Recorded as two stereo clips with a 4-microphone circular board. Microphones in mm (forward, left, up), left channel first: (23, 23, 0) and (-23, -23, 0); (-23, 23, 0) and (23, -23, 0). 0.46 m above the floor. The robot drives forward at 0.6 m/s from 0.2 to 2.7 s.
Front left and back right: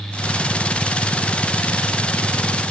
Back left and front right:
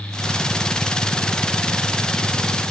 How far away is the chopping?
No chopping in this recording.